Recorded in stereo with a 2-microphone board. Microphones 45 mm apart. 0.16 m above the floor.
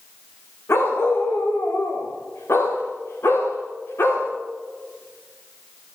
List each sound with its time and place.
0.7 s a dog barking: 70° left (ahead or behind), 6 m; by 4.3 s 80° left, 7.5 m